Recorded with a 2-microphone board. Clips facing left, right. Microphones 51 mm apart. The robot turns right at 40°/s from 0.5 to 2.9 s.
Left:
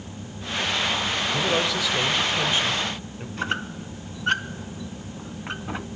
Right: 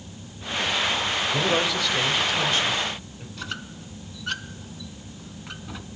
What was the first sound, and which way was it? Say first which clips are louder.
A man speaking: right 1 dB; 15° right.